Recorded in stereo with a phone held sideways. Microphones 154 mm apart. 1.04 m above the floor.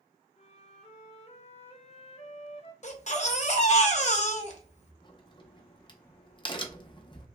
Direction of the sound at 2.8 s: 45° left (ahead or behind).